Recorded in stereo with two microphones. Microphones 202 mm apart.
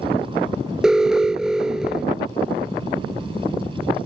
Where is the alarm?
5° right (ahead or behind).